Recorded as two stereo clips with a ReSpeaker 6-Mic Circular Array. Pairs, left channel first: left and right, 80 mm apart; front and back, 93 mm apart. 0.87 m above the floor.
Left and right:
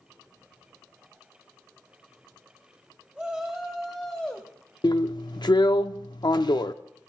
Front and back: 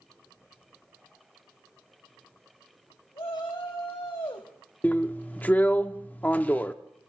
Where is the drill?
70° left, 0.6 m.